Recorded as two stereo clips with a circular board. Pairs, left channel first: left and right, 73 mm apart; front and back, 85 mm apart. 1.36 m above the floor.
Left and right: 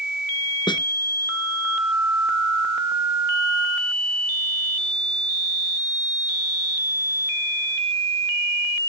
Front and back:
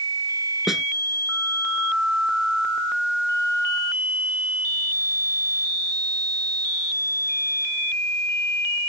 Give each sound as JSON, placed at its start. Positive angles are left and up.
{"t": 0.7, "sound": "a snare drum", "azimuth_deg": 90}